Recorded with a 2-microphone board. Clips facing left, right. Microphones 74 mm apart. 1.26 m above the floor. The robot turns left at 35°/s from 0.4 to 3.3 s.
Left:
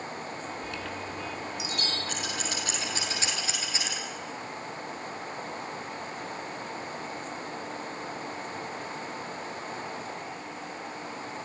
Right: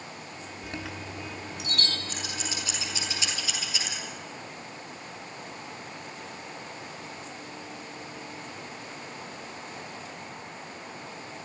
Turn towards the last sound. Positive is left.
turn(degrees=35)  # may be behind; listen again after turning